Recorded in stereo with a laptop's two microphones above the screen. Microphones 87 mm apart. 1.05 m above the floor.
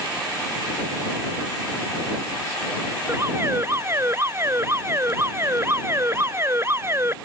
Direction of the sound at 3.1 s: 30° right (ahead or behind).